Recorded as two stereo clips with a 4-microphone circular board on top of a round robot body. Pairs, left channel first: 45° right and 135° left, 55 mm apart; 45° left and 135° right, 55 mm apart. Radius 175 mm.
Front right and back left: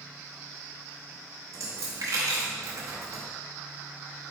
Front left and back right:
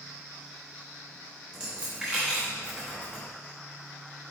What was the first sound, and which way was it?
A dropped coin, 150° left.